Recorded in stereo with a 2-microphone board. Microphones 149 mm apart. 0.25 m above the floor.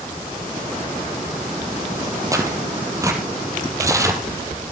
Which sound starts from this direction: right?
Tearing paper, at 2.3 s.